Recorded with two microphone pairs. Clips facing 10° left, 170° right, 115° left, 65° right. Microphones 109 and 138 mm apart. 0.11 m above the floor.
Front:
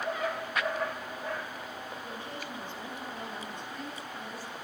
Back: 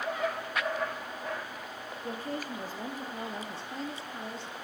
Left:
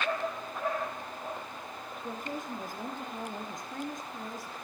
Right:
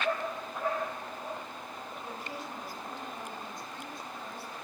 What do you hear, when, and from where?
2.0 s a woman speaking: 150° left, 3 m; by 4.5 s 130° left, 2.0 m